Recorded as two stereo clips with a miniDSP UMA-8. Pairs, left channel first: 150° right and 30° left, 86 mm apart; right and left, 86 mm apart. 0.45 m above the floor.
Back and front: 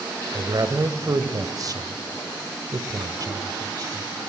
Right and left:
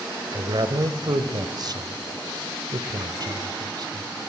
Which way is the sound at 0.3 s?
65° left.